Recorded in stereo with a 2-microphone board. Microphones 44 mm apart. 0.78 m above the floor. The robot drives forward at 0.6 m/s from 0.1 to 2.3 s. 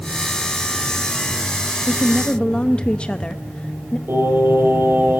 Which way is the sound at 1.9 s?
25° left (ahead or behind).